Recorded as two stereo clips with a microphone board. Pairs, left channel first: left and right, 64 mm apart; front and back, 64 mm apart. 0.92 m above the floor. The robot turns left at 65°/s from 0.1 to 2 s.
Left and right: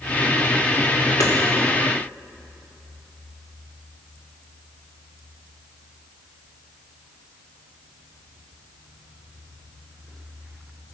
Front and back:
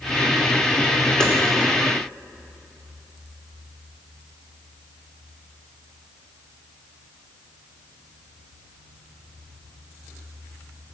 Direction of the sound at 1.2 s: 75° left.